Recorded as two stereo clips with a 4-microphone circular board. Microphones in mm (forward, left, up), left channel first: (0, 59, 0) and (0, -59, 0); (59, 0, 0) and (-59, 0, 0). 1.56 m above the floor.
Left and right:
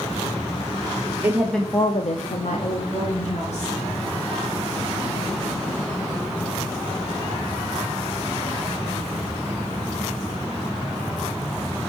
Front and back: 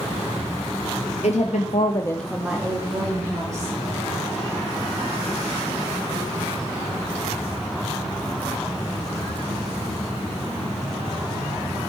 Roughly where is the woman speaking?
Ahead.